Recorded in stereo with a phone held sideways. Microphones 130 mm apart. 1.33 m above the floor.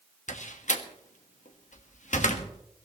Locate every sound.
0.3 s a door slam: 75° left (ahead or behind), 1.5 m